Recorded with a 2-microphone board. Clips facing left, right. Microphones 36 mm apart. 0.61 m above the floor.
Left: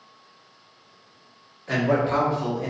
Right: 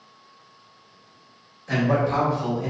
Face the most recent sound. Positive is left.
turn(degrees=40)  # may be behind; listen again after turning